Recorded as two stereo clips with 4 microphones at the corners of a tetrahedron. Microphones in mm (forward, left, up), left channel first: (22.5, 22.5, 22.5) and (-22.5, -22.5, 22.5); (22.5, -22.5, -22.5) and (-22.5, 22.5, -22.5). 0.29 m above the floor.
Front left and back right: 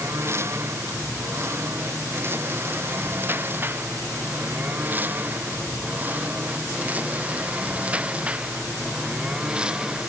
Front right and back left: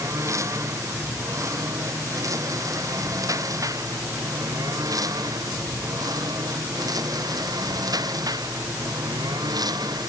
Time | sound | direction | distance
0.0 | a lawn mower | 175° left | ?